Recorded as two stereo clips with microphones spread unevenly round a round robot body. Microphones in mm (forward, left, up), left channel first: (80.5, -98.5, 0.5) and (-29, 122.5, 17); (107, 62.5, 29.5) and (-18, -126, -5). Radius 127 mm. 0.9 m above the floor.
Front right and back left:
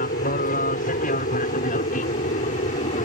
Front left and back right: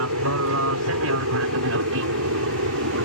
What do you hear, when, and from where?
0.0 s an aircraft: 120° right; by 3.0 s 125° right